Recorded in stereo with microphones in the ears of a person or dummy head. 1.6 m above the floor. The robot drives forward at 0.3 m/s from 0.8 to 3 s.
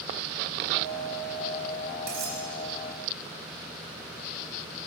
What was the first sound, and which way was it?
Cutlery clinking, 45° right (ahead or behind).